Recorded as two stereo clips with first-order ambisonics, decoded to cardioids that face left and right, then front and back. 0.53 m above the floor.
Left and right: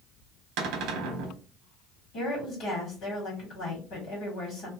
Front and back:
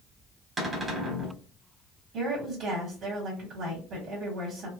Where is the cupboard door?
105° right, 1.0 m.